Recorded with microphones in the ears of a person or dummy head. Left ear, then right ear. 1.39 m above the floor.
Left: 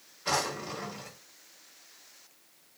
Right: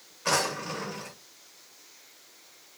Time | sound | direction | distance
0.2 | a drawer | 45° right (ahead or behind) | 1.1 m